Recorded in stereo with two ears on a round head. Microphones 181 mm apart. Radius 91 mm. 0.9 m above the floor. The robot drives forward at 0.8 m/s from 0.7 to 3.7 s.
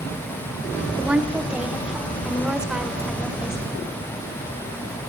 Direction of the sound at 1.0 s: 5° right (ahead or behind).